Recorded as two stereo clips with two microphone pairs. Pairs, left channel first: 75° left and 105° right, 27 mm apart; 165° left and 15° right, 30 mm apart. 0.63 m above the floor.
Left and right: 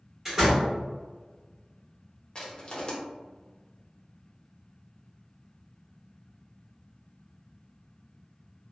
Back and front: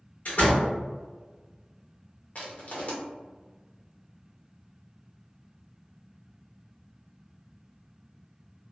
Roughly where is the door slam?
Behind.